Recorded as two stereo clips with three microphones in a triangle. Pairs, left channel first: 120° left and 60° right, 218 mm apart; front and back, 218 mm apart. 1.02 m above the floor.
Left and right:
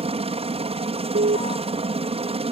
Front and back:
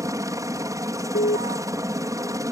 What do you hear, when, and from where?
0.0 s a helicopter: 110° right
1.1 s an alarm: 30° right